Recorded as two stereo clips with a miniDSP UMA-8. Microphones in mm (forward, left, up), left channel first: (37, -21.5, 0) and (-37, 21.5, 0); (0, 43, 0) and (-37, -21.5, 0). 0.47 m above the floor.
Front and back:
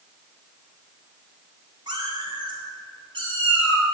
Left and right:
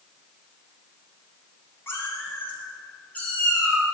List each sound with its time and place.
1.9 s a cat meowing: 120° left, 2.5 m; by 3.9 s 135° left, 4.5 m